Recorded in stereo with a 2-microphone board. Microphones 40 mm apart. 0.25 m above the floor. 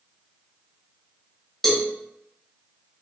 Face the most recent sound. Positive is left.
turn(degrees=5)  # may be behind; listen again after turning